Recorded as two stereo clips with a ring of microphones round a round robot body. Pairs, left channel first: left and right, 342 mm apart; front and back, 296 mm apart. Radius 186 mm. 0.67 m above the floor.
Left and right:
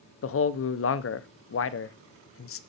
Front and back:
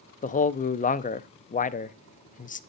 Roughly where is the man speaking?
Ahead left.